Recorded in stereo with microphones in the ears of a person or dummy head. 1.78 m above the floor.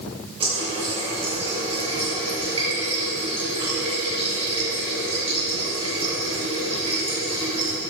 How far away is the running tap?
About 1.6 m.